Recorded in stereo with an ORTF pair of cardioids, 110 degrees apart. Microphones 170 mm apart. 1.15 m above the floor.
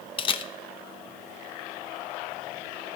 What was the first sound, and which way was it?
A camera shutter, 30° left.